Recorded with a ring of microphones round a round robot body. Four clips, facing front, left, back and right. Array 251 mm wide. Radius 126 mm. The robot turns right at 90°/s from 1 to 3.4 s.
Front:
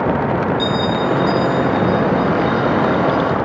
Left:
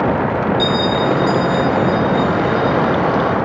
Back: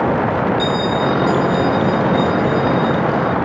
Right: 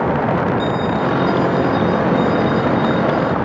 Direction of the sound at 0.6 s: 70° left.